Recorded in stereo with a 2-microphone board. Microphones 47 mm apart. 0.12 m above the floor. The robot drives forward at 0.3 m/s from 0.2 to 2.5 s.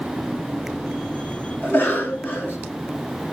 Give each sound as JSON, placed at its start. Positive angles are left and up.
{"t": 1.6, "sound": "a cough", "side_deg": 45, "distance_m": 1.9}